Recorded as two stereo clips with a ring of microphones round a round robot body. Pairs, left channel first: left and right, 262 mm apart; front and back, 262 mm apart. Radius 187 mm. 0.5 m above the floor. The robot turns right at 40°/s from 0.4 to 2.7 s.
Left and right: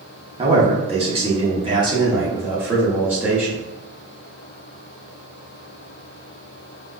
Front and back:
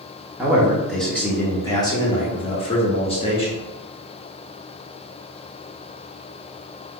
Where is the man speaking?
110° right, 0.7 m; by 3.6 s 15° right, 0.7 m.